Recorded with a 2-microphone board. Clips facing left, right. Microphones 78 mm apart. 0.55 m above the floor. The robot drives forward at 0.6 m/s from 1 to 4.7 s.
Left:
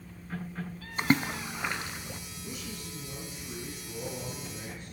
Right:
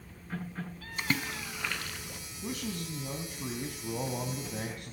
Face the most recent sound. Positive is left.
turn(degrees=-75)  # may be behind; listen again after turning